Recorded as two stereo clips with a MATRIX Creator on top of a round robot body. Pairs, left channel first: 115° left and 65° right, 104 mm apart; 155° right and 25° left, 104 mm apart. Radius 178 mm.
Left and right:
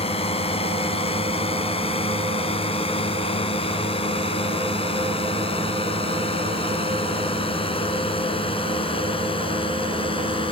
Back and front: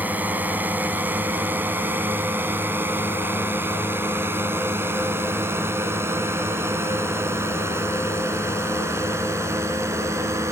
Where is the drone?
95° left; by 10.5 s 85° left.